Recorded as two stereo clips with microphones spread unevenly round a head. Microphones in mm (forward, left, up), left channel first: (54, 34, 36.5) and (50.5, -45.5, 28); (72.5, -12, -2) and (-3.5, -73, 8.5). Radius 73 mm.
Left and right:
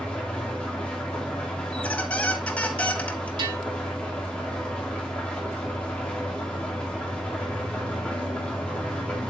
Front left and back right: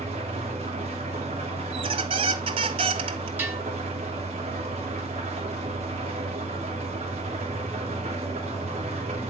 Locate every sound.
0.0 s an engine running: 170° left, 2.5 m
1.7 s a squeak: 170° left, 0.6 m
3.4 s a bell: 75° right, 5 m